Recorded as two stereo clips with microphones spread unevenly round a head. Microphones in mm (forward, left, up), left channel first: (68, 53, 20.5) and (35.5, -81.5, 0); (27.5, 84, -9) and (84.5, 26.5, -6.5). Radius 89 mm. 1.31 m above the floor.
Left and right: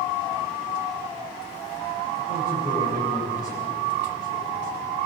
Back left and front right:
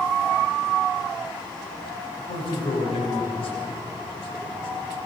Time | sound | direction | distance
2.2 | a man speaking | 145° left | 8 m